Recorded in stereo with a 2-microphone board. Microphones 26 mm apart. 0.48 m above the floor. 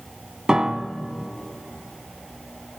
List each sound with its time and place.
0.5 s a piano: 25° right (ahead or behind), 0.7 m